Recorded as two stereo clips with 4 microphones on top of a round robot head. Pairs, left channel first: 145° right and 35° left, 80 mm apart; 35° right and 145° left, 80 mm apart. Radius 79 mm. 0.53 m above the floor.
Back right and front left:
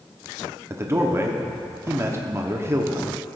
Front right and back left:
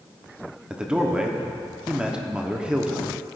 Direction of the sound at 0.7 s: 75° left.